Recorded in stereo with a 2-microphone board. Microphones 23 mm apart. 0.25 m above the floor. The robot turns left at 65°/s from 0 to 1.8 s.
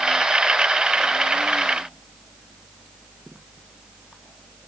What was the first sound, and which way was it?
Only background noise.